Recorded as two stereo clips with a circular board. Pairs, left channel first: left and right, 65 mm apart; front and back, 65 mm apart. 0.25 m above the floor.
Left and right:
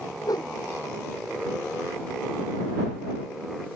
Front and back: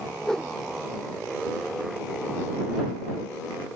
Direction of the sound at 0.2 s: 85° left.